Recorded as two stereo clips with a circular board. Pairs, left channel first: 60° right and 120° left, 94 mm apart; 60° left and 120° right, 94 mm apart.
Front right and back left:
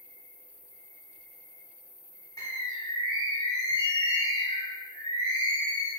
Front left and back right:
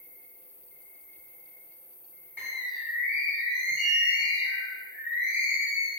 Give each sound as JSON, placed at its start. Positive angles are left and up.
{"t": 0.0, "sound": "an insect", "azimuth_deg": 140, "distance_m": 0.9}
{"t": 2.4, "sound": "a bird", "azimuth_deg": -55, "distance_m": 1.2}